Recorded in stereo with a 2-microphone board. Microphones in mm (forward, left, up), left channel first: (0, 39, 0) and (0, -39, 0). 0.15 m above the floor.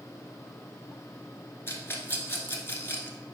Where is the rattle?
30° left (ahead or behind), 1.0 m.